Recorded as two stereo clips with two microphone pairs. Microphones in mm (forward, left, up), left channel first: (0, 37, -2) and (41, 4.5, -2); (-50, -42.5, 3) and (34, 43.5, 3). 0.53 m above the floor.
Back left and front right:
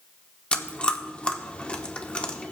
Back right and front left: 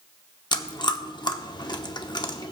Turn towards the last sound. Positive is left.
turn(degrees=-160)